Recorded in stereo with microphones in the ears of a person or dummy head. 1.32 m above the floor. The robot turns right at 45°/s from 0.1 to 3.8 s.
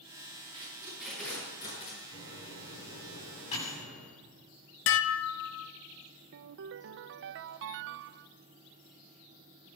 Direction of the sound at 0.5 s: 25° right (ahead or behind).